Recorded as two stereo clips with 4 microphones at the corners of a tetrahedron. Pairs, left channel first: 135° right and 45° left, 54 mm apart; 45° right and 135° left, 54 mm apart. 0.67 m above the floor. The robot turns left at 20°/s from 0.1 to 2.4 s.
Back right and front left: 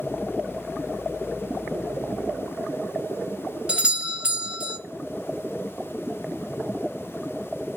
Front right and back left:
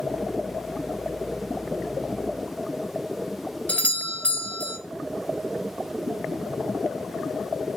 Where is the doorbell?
10° right, 0.9 m.